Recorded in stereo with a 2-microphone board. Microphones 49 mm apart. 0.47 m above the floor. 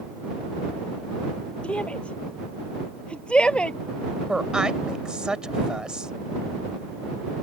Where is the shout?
25° left (ahead or behind); by 3.8 s 20° left (ahead or behind).